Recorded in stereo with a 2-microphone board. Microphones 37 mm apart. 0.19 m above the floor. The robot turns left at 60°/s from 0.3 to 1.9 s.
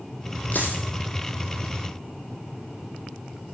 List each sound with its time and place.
0.5 s a dropped coin: 55° left (ahead or behind), 2 m; by 0.8 s 75° left (ahead or behind), 2 m